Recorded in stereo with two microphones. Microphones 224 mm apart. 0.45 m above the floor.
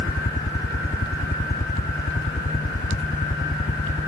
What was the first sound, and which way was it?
A helicopter, 35° left (ahead or behind).